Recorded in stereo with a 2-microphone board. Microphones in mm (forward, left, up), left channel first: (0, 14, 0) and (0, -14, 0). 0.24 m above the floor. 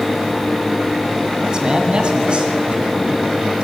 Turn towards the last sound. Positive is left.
turn(degrees=-40)  # may be behind; listen again after turning